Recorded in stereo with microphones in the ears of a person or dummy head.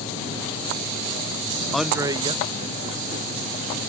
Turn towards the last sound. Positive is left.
turn(degrees=-40)  # may be behind; listen again after turning